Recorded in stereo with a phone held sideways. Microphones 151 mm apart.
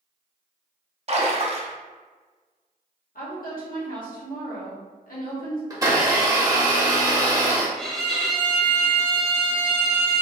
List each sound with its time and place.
1.1 s a splash: 45° right (ahead or behind), 0.6 m
3.1 s a woman speaking: 70° left (ahead or behind), 1.2 m
5.7 s a blender: 25° right (ahead or behind), 0.8 m
7.8 s a violin: centre (ahead or behind), 0.7 m